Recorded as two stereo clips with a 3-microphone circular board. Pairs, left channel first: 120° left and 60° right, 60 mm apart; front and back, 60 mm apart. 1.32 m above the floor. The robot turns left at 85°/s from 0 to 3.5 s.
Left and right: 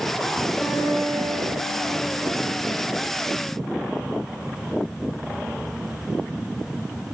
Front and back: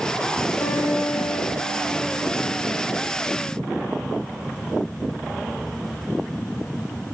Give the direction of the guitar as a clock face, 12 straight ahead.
11 o'clock.